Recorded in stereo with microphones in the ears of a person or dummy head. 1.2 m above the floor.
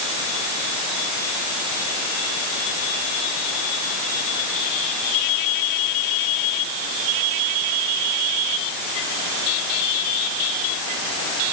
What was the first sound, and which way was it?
Only background noise.